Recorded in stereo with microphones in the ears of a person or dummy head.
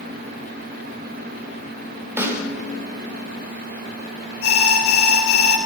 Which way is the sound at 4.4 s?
75° left (ahead or behind).